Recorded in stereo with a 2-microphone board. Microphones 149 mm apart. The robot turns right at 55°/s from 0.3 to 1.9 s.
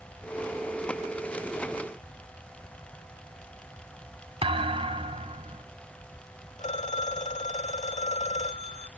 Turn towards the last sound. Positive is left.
turn(degrees=50)  # may be behind; listen again after turning